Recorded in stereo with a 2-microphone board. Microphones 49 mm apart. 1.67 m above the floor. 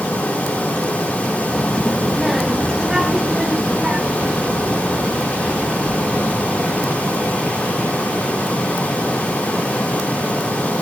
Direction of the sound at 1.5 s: 10° left (ahead or behind).